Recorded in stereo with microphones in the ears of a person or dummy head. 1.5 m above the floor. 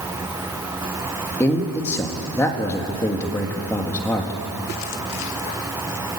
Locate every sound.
1.4 s a man speaking: 10° left (ahead or behind), 2 m